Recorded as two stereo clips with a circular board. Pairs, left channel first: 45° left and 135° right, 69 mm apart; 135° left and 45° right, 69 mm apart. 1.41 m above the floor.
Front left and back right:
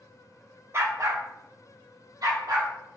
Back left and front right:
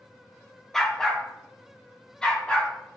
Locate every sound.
0.7 s a dog barking: 145° right, 1.1 m; by 2.7 s 150° right, 2.5 m